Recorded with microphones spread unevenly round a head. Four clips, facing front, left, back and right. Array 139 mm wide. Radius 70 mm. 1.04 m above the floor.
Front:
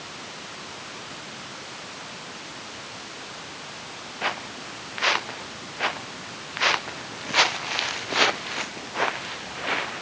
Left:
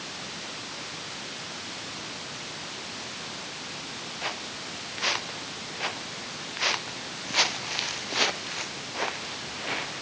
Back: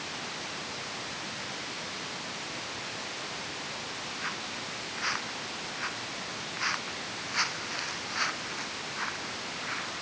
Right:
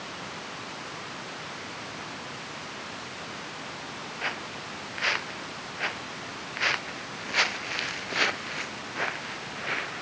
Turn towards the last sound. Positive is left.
turn(degrees=5)